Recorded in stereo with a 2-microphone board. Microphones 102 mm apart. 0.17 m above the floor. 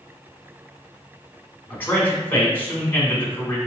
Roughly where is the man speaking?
Centre.